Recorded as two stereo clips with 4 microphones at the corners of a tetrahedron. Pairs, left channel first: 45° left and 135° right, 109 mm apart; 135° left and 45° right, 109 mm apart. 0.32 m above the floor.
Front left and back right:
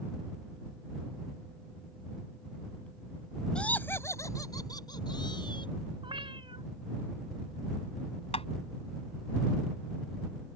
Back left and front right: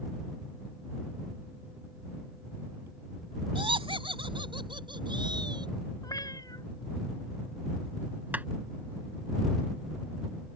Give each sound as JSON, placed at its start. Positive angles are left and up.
{"t": 3.5, "sound": "laughter", "azimuth_deg": -35}
{"t": 6.0, "sound": "a cat meowing", "azimuth_deg": -170}
{"t": 8.3, "sound": "tapping", "azimuth_deg": 30}